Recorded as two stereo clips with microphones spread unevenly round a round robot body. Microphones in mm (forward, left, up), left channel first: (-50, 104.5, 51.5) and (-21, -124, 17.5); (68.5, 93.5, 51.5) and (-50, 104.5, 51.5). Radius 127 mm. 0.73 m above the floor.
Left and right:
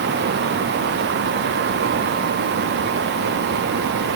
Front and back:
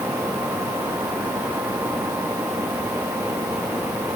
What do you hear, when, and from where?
Only background noise.